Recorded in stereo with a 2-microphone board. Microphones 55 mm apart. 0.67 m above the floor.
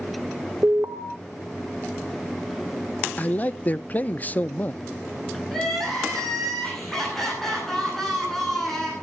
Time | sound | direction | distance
0.6 | an alarm | 50° right (ahead or behind) | 1.9 m
3.2 | a man speaking | 30° left (ahead or behind) | 0.6 m
5.5 | crying | 5° left (ahead or behind) | 9.5 m